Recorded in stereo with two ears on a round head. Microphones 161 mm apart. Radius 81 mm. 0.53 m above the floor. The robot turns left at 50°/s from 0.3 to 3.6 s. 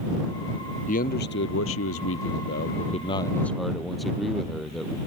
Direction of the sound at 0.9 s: 135° left.